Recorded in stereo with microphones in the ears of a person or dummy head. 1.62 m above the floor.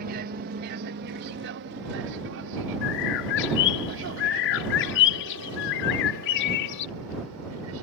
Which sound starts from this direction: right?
An aircraft, at 0.0 s.